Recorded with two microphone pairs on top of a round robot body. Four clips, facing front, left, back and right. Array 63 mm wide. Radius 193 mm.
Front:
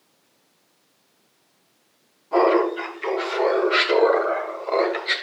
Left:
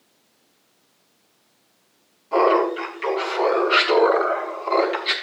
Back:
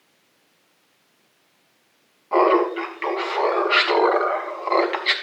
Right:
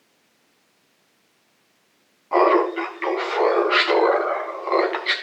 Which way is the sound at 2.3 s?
135° right.